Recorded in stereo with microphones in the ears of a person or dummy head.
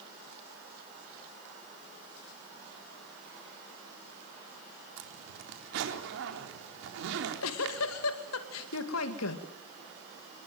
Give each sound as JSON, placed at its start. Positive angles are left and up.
{"t": 5.0, "sound": "a zipper", "side_deg": -70, "distance_m": 4.0}
{"t": 7.1, "sound": "a giggle", "side_deg": 80, "distance_m": 2.0}